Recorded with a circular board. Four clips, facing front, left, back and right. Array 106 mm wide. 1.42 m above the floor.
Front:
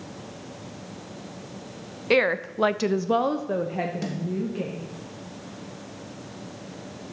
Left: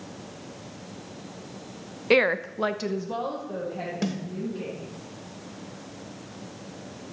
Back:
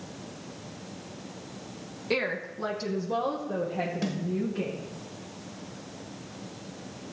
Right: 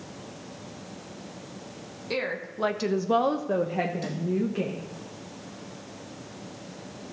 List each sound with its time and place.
2.1 s a woman speaking: 55° left, 0.7 m; by 4.8 s 65° right, 1.8 m
4.0 s a snare drum: 95° left, 1.1 m